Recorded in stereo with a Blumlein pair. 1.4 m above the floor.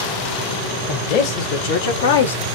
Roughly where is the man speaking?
Ahead left.